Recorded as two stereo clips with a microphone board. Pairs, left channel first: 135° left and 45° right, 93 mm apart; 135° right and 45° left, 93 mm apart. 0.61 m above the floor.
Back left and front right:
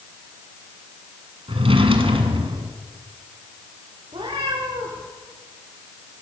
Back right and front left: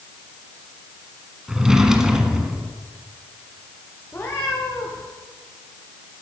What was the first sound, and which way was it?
A drawer, 40° right.